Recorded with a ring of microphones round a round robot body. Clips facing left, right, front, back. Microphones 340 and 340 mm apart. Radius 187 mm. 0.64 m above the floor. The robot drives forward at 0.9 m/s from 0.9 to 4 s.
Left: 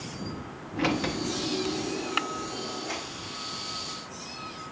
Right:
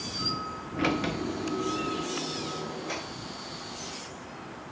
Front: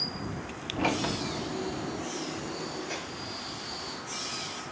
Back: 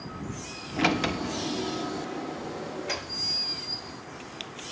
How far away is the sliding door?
About 0.7 m.